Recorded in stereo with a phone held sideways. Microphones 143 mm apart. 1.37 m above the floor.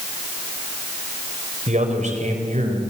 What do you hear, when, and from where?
1.7 s a man speaking: 60° right (ahead or behind), 5 m